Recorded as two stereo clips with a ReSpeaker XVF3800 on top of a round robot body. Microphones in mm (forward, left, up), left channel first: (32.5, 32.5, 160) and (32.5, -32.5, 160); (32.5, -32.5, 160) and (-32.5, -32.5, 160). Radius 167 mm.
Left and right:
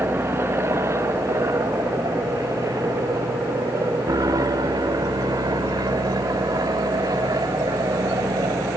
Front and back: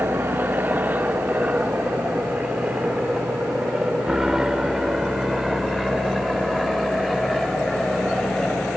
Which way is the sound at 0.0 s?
130° right.